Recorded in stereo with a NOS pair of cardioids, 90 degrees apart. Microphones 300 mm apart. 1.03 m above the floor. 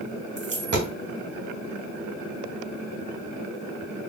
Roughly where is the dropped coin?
Ahead right.